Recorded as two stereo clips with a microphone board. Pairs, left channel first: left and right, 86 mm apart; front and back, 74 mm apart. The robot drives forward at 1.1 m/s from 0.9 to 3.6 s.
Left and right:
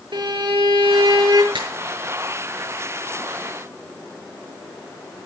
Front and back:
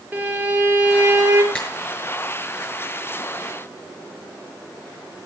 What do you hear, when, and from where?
0.1 s a violin: 110° right, 7 m; by 1.4 s 115° right, 7 m
1.5 s a finger snap: 75° right, 5.5 m; by 1.7 s 80° right, 5.5 m